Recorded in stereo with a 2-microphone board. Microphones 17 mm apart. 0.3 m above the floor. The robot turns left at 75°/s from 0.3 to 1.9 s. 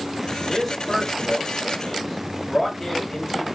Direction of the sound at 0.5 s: 175° left.